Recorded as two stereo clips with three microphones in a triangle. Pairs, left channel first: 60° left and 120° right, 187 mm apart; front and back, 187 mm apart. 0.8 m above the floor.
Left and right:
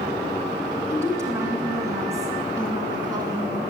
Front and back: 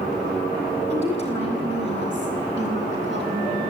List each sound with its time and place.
0.9 s a woman speaking: 165° left, 8 m; by 3.7 s 170° left, 10 m